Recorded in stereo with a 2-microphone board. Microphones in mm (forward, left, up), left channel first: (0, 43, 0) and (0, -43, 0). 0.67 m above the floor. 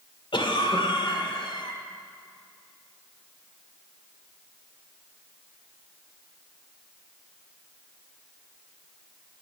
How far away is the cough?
About 1.8 m.